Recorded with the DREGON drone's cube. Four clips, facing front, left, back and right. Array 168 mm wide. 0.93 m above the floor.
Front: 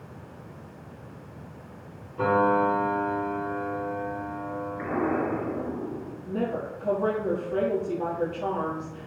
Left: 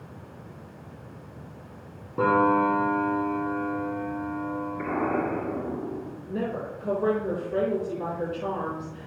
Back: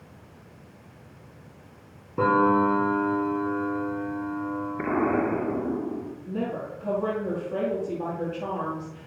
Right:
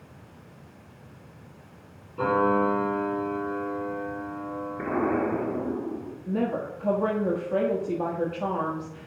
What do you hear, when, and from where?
2.2 s a piano: 145° left, 4 m
4.8 s an explosion: 165° right, 1.3 m
6.3 s a woman speaking: 85° right, 1.3 m